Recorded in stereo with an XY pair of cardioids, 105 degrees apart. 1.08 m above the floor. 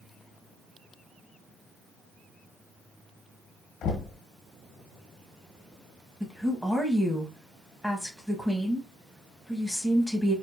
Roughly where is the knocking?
Left.